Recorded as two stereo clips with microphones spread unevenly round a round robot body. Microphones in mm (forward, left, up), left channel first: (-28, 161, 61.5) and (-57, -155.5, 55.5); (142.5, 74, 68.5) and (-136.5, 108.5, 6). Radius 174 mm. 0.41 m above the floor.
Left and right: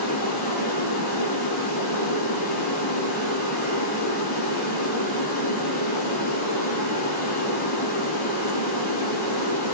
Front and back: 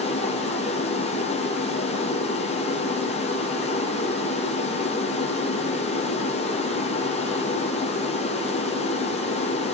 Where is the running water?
60° left, 5.5 m.